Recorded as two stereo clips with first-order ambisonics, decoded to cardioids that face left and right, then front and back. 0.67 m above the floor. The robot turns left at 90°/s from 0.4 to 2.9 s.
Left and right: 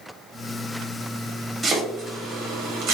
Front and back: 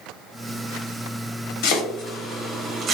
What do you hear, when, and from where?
1.6 s chopping: 10° right, 1.1 m; by 2.9 s 125° right, 1.1 m